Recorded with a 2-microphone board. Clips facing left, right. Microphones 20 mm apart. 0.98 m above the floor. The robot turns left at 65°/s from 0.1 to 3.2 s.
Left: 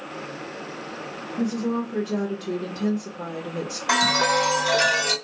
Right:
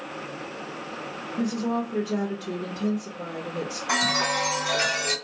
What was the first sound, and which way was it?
A woman speaking, 135° right.